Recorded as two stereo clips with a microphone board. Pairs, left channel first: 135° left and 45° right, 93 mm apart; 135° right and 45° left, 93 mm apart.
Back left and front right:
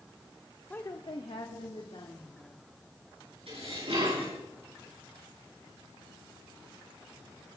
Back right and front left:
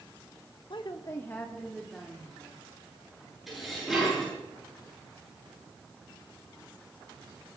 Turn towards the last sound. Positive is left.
turn(degrees=-45)